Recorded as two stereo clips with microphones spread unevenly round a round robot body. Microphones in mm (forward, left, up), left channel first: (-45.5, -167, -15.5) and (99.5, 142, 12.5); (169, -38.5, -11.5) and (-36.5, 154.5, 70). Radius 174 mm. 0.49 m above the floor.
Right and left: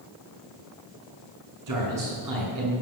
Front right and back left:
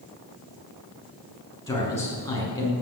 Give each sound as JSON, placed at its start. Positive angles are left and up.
{"t": 1.7, "sound": "a man speaking", "azimuth_deg": 35, "distance_m": 6.5}